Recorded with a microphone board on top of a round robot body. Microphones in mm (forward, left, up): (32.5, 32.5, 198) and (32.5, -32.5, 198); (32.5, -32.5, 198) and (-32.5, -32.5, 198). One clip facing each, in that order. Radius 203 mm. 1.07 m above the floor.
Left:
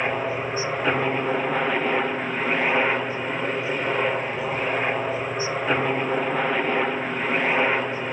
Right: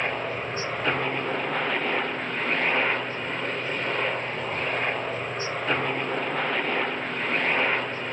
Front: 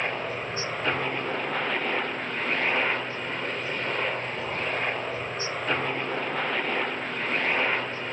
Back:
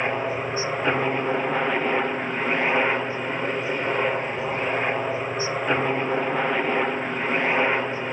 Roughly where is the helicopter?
Behind left.